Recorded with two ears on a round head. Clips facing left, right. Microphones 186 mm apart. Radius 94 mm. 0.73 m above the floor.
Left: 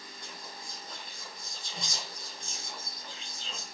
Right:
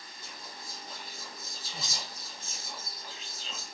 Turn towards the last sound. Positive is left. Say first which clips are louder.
# even
turn(degrees=-5)  # may be behind; listen again after turning